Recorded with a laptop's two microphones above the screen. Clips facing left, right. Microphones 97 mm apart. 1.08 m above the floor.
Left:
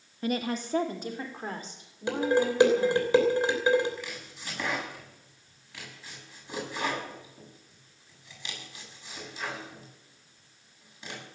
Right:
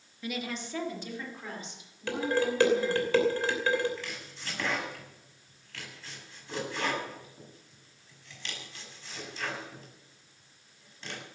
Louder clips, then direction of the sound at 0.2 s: Left 6 dB; 45° left (ahead or behind).